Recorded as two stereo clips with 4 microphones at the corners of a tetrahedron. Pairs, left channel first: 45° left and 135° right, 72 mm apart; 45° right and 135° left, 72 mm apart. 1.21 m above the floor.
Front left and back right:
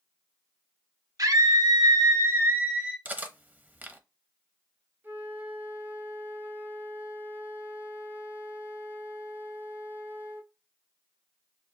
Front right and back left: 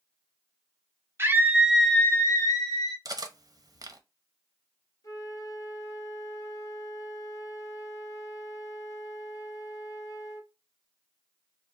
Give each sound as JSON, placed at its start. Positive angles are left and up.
{"t": 1.2, "sound": "a scream", "azimuth_deg": -170, "distance_m": 1.1}
{"t": 3.0, "sound": "cutlery clinking", "azimuth_deg": 160, "distance_m": 0.7}
{"t": 5.0, "sound": "a flute", "azimuth_deg": -75, "distance_m": 1.1}